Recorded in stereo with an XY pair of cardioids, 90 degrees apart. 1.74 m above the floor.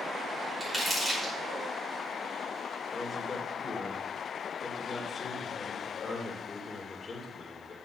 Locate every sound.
0.6 s crumpling: 20° right, 5 m
2.9 s a man speaking: 25° left, 2.5 m